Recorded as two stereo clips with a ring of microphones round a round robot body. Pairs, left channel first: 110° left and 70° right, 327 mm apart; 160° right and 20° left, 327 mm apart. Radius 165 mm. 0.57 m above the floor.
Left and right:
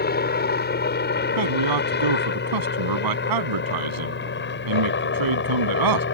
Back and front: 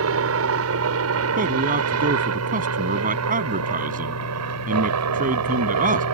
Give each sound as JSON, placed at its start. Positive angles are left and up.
{"t": 0.0, "sound": "a helicopter", "azimuth_deg": 60}
{"t": 1.4, "sound": "a man speaking", "azimuth_deg": -45}